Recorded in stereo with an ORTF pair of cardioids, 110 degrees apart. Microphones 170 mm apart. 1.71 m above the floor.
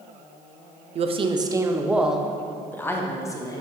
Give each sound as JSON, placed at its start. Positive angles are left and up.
{"t": 0.9, "sound": "a woman speaking", "azimuth_deg": -40, "distance_m": 0.8}